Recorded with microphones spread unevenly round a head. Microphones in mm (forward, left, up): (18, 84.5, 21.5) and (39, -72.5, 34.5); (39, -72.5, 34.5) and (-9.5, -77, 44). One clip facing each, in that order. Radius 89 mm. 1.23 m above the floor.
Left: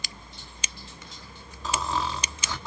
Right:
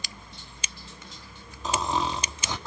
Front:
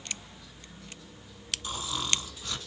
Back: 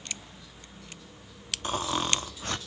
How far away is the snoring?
About 1.0 m.